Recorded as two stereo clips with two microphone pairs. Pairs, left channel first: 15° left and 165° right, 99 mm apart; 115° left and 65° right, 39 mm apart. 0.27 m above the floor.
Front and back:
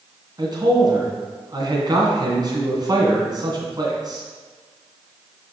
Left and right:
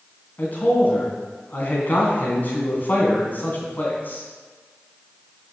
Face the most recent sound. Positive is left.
turn(degrees=150)